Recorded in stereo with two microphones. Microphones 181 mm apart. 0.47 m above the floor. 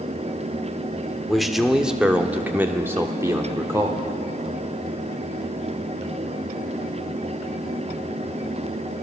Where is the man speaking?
Centre (ahead or behind), 1.5 m; by 4.0 s 20° right (ahead or behind), 1.6 m.